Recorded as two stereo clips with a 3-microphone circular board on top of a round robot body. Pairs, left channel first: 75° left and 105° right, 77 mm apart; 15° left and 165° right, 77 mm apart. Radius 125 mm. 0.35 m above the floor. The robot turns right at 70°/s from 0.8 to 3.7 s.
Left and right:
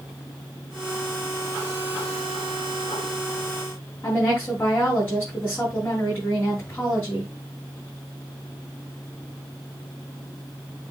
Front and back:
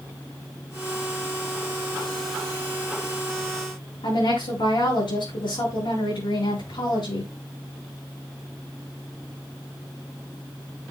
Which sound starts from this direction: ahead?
A woman speaking, at 4.0 s.